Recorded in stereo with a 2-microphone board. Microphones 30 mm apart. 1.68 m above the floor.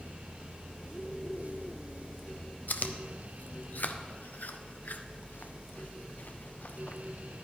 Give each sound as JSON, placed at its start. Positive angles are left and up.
{"t": 2.7, "sound": "chewing", "side_deg": 70, "distance_m": 0.5}